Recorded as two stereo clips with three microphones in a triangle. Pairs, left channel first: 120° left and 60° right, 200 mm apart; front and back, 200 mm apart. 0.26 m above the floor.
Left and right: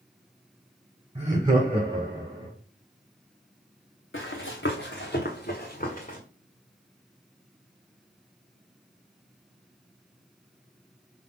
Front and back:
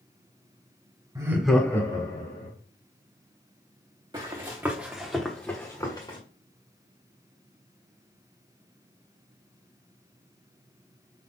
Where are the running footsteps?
115° left, 1.4 m; by 6.2 s 65° left, 1.7 m.